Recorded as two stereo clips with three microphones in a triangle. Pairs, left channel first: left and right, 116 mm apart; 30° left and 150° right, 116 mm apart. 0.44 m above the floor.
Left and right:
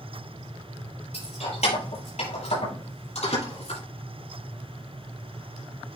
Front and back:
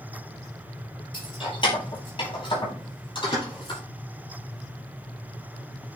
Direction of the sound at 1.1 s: 75° left.